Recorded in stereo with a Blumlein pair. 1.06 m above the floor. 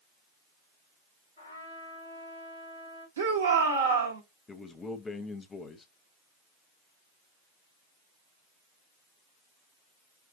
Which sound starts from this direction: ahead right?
A shout, at 3.2 s.